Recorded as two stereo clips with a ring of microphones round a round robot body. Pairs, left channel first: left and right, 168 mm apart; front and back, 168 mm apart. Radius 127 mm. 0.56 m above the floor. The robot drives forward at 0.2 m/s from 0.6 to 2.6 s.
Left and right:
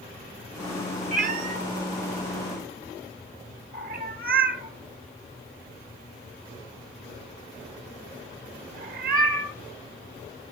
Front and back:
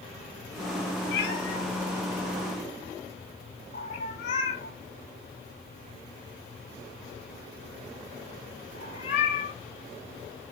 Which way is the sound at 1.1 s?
50° right.